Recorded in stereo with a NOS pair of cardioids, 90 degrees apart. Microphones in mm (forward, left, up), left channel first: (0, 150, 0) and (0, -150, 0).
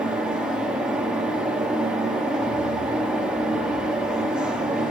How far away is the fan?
About 1.3 m.